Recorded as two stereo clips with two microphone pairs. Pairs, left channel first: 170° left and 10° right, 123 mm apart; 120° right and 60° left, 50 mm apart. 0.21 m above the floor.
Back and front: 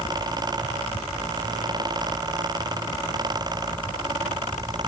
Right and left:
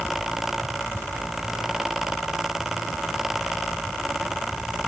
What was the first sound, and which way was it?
Only background noise.